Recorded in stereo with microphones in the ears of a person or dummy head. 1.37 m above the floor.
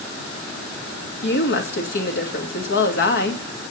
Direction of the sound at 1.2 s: 60° left (ahead or behind).